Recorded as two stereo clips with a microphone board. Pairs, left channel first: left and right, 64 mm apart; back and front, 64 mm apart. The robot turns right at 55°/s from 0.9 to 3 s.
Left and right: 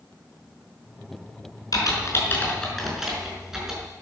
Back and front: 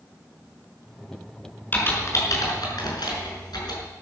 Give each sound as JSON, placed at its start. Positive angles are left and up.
{"t": 1.7, "sound": "typing on a keyboard", "azimuth_deg": 115, "distance_m": 5.5}